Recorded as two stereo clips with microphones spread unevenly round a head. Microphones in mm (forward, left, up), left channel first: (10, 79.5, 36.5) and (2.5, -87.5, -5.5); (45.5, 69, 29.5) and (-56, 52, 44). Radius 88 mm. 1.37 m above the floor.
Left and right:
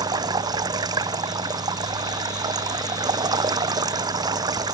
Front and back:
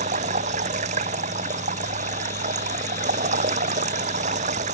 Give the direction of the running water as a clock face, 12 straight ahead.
5 o'clock.